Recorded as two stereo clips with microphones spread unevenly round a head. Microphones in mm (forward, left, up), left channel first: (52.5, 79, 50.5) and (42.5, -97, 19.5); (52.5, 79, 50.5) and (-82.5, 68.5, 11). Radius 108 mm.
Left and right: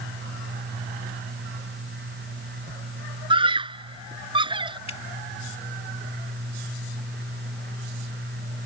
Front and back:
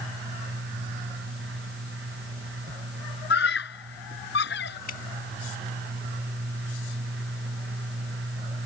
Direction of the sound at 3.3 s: 30° right.